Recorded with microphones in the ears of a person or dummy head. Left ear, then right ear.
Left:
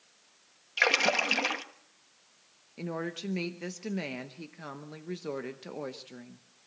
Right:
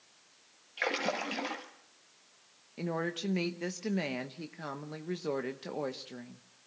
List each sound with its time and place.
0.8 s a splash: 35° left (ahead or behind), 1.2 m
2.8 s a woman speaking: 15° right (ahead or behind), 0.9 m